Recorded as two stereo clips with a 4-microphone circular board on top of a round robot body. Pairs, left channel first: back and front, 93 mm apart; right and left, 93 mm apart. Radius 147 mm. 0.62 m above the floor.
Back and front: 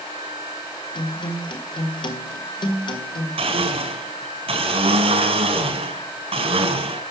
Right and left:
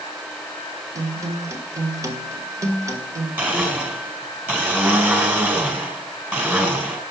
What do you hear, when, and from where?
0.9 s a guitar: 145° left, 2.5 m
3.4 s a blender: 20° left, 4.5 m